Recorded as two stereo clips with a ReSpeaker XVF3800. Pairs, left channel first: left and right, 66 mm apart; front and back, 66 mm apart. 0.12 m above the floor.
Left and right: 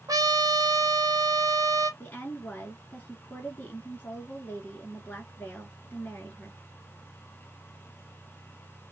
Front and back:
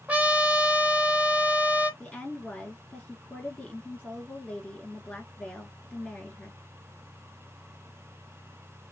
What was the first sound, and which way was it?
A trumpet, 115° right.